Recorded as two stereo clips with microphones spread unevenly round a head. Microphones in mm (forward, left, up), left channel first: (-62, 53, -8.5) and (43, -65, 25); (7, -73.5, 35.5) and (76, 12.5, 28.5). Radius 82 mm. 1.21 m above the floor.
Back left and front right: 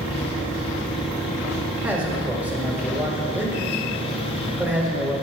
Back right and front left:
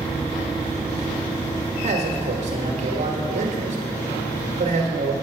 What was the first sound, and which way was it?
A man speaking, 35° left.